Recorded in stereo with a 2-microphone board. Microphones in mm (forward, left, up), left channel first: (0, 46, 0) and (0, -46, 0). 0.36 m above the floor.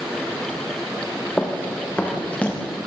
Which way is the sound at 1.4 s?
15° left (ahead or behind).